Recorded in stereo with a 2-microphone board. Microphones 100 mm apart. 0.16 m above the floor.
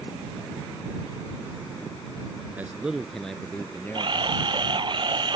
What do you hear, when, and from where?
2.6 s a man speaking: 20° right (ahead or behind); by 4.9 s 35° left (ahead or behind)
3.9 s a camera shutter: 55° right (ahead or behind)